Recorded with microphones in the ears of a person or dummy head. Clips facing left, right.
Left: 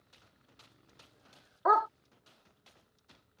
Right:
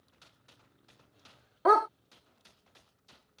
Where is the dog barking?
40° right (ahead or behind).